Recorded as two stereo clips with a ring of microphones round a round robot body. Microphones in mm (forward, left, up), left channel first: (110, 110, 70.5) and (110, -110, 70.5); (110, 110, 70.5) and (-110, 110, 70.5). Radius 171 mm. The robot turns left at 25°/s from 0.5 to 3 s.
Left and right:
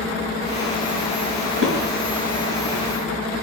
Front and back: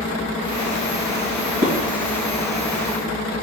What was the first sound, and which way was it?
Dishes clattering, 130° right.